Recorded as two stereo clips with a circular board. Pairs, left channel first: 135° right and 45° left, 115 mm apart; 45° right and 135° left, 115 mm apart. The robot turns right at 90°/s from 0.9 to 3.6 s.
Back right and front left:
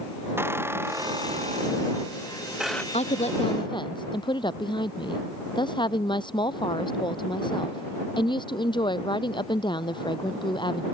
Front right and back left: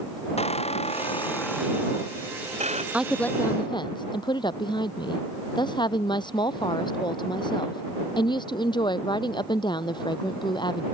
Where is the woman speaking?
150° right; by 10.8 s 90° right.